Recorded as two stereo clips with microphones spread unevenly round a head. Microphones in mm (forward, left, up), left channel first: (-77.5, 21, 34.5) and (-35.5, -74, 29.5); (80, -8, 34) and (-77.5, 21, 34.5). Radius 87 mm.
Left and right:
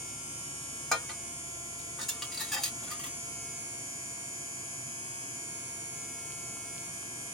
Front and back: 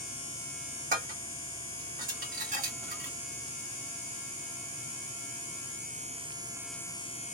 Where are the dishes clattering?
160° right, 1.4 m.